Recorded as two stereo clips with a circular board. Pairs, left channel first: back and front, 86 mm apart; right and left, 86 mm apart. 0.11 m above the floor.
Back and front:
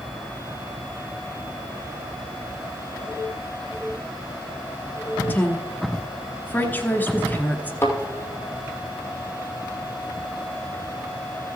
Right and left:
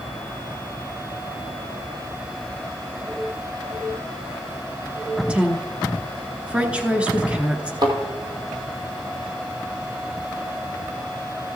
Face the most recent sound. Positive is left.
turn(degrees=120)